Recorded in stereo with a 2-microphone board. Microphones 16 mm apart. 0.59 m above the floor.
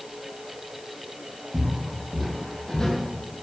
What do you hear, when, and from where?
1.5 s footsteps: 10° right (ahead or behind), 2 m; by 3.0 s 50° left (ahead or behind), 1.5 m